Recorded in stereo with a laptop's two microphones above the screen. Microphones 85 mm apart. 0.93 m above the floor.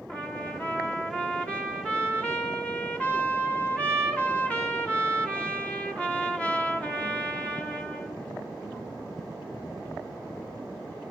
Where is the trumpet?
15° left (ahead or behind), 4 m.